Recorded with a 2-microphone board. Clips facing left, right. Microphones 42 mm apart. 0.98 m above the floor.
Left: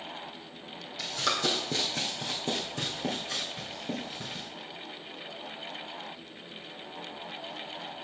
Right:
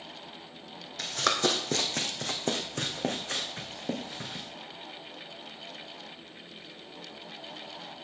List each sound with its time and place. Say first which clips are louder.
1.0 s running footsteps: right 2 dB; 55° right (ahead or behind), 1.8 m; by 4.5 s 70° right (ahead or behind), 3.5 m